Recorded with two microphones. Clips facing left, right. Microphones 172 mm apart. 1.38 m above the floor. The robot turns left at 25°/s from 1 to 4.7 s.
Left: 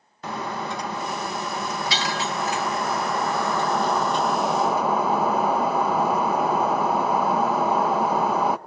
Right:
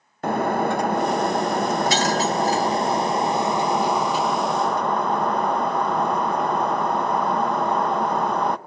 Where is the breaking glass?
95° right, 0.7 m; by 8.6 s 175° left, 0.7 m.